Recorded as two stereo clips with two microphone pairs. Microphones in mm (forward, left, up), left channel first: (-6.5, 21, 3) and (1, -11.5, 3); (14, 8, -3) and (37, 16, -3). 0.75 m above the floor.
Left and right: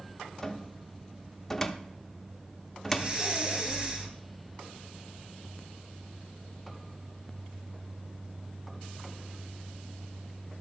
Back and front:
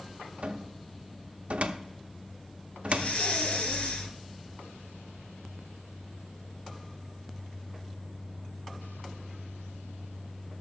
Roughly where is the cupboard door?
Ahead left.